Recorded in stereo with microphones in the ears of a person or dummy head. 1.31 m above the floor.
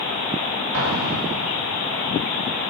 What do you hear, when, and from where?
0.7 s an explosion: 85° right, 4 m